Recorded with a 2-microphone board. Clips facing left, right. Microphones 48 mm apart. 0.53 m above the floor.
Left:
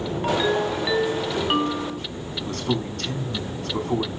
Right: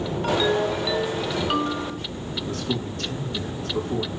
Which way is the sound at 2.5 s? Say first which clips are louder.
Left 3 dB; 80° left.